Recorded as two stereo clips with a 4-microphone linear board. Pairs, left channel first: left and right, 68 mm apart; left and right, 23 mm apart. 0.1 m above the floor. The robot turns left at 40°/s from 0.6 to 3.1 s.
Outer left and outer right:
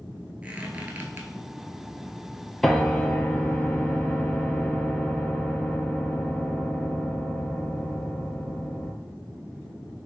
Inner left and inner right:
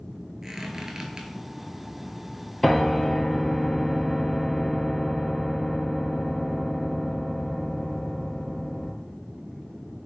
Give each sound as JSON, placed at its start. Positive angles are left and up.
{"t": 0.4, "sound": "a squeak", "side_deg": -15, "distance_m": 0.6}
{"t": 2.6, "sound": "a piano", "side_deg": 0, "distance_m": 0.7}